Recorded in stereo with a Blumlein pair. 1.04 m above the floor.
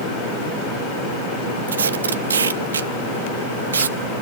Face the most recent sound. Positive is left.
turn(degrees=-70)